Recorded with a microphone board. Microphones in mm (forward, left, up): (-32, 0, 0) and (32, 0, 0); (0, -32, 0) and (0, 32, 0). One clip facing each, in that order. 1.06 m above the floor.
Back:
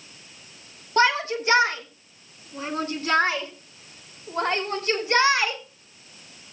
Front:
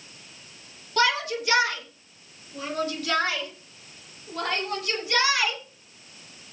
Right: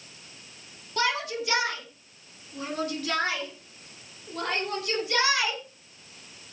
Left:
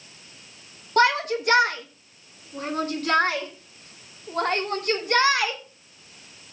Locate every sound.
1.0 s a shout: 125° left, 2 m; by 5.6 s 130° left, 5 m